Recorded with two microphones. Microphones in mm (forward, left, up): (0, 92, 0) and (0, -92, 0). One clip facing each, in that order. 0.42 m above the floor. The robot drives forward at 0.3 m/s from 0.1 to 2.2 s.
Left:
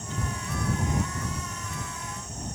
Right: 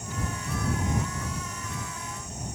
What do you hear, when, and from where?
Only background noise.